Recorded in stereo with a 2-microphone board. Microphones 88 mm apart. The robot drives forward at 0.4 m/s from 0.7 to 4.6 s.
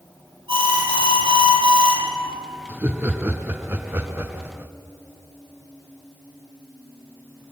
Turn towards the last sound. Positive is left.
turn(degrees=-25)  # may be behind; listen again after turning